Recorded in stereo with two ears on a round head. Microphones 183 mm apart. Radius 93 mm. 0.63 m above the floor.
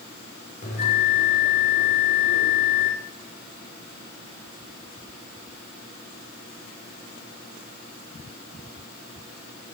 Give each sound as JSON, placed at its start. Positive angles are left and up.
{"t": 0.6, "sound": "a bell", "side_deg": 50, "distance_m": 2.5}